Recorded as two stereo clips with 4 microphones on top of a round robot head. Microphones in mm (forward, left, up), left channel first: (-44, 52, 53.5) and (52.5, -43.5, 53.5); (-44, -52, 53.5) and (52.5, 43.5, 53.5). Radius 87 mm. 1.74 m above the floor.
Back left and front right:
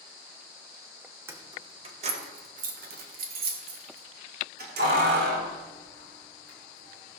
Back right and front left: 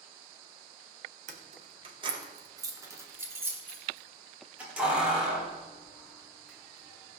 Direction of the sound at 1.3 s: 25° left.